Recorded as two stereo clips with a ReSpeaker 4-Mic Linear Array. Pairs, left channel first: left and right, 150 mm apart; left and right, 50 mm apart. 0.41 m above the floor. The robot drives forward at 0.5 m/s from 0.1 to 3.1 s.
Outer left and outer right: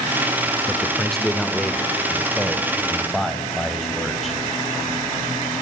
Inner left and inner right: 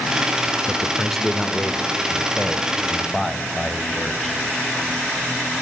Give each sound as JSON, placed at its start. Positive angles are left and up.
{"t": 0.7, "sound": "a man speaking", "side_deg": 5, "distance_m": 0.8}